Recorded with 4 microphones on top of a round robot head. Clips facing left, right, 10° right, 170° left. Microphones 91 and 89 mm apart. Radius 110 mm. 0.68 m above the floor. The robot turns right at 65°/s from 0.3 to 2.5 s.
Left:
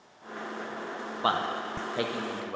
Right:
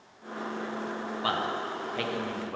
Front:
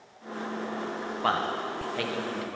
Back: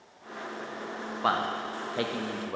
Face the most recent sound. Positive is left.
turn(degrees=165)